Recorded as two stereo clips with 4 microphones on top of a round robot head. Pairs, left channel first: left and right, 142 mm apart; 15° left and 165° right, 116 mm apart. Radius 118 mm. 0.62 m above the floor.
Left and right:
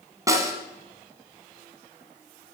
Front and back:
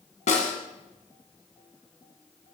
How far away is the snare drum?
About 2 m.